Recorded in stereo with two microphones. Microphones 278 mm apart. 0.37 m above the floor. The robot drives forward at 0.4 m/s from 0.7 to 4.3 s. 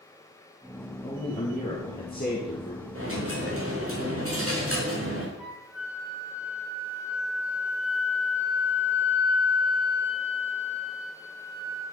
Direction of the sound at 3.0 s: 50° right (ahead or behind).